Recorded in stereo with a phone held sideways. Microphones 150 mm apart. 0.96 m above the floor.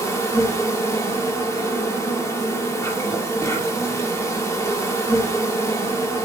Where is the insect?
20° left (ahead or behind), 3 m.